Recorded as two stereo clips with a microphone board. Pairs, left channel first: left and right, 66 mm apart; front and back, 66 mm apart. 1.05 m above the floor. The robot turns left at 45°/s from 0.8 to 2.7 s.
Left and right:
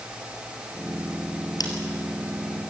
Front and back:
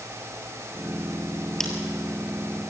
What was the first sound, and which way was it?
Scissors, 85° left.